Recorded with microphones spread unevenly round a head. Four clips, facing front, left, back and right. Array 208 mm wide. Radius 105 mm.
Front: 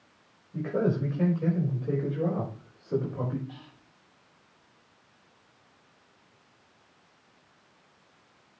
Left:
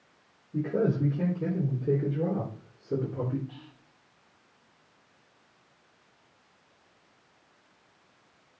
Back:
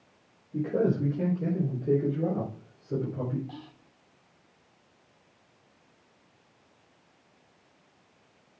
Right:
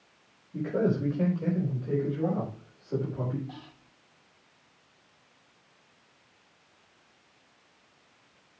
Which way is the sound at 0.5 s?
140° left.